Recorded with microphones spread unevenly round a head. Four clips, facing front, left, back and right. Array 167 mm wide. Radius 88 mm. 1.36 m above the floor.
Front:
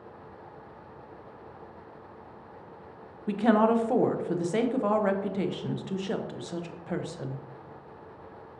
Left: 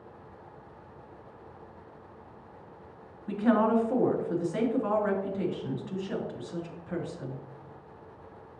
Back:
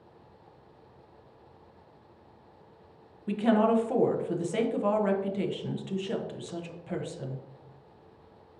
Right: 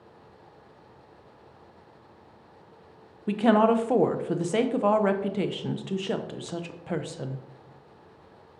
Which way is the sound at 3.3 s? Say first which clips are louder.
Right 4 dB, front 1 dB; 60° right.